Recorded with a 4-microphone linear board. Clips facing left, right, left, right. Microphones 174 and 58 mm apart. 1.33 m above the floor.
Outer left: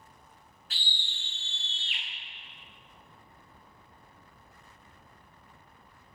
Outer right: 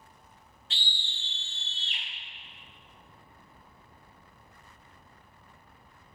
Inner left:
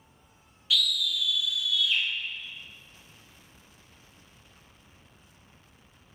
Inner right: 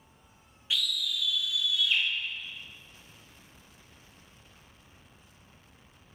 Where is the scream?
25° right (ahead or behind), 1.5 m; by 2.0 s 45° right (ahead or behind), 2 m.